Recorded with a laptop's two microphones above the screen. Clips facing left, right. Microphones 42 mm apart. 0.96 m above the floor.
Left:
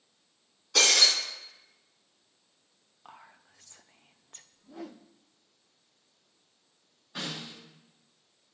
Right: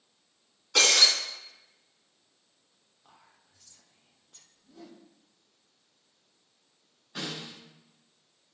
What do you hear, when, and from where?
0.8 s breaking glass: 35° right (ahead or behind), 3 m
3.0 s whispering: 60° left (ahead or behind), 0.6 m
4.5 s a whoosh: 70° left (ahead or behind), 0.5 m
7.2 s a snare drum: centre (ahead or behind), 4 m